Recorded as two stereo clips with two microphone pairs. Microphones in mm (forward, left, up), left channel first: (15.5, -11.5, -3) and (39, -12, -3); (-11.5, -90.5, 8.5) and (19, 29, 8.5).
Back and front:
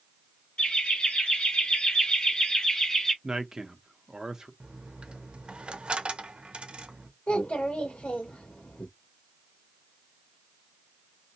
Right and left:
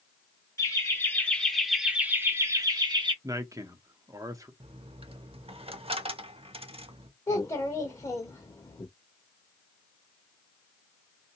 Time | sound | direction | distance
0.6 | laughter | 160° right | 1.3 m
3.2 | a man speaking | 35° left | 0.7 m
4.6 | a dropped coin | 35° left | 0.5 m
7.3 | a child speaking | 170° right | 0.8 m